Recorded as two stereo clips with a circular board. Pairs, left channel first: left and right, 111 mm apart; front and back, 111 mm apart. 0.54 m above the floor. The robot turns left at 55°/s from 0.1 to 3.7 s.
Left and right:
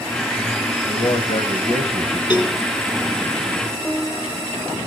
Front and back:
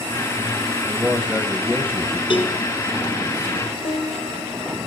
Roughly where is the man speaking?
Behind left.